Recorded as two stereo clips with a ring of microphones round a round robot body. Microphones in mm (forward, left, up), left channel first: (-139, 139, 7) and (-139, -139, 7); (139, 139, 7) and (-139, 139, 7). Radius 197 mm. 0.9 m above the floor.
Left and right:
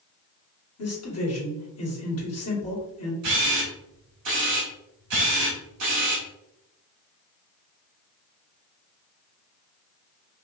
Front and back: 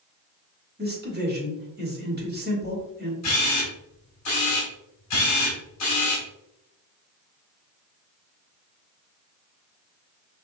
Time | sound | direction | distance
0.8 | a man speaking | 125° left | 2.5 m
3.2 | a camera shutter | 50° right | 1.6 m